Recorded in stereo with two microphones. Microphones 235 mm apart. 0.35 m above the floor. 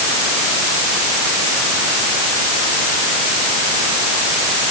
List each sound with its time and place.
Only background noise.